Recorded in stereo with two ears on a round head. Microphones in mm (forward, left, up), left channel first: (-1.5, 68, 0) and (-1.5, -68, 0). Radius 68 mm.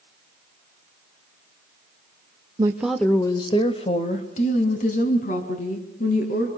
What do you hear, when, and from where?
2.6 s a woman speaking: 25° right (ahead or behind), 1.0 m; by 6.5 s 55° left (ahead or behind), 6 m